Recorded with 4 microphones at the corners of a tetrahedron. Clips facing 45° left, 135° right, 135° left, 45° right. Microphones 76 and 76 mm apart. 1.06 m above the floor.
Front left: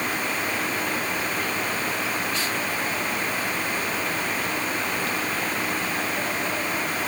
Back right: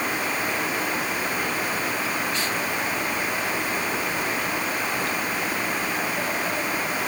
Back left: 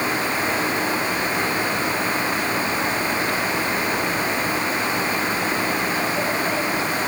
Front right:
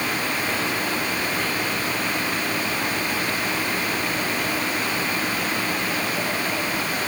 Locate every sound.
Only background noise.